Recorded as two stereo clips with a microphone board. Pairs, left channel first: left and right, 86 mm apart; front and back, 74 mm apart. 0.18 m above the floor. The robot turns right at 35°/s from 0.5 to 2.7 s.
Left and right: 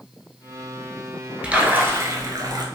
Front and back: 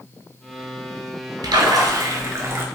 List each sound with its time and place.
1.4 s a splash: 165° right, 0.6 m; by 2.6 s 120° right, 0.6 m